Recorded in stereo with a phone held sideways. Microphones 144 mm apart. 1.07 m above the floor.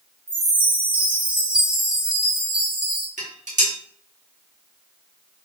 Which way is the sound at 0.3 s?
35° right (ahead or behind).